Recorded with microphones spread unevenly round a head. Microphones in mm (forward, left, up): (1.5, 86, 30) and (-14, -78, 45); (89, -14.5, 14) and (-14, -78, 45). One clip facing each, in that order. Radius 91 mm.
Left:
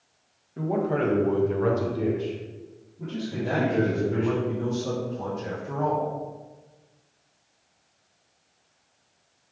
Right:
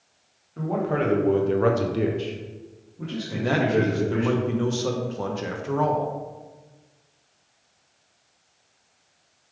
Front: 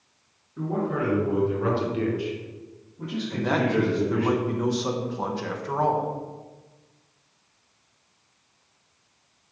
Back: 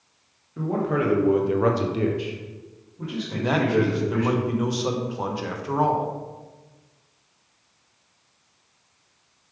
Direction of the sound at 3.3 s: 75° right.